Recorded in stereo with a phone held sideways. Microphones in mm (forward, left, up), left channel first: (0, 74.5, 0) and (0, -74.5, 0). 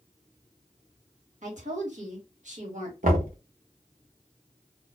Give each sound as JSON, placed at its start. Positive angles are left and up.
{"t": 1.4, "sound": "a woman speaking", "side_deg": -60, "distance_m": 1.9}
{"t": 3.0, "sound": "knocking", "side_deg": -75, "distance_m": 1.4}